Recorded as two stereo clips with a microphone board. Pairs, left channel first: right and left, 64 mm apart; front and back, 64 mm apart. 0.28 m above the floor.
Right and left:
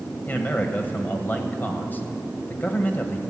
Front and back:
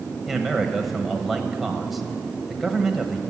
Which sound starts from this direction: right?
A man speaking, at 0.3 s.